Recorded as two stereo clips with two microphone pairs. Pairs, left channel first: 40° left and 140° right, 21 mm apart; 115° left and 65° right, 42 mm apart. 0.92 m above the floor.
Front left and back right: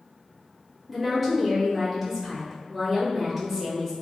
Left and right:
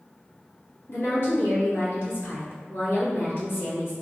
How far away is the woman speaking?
About 1.9 m.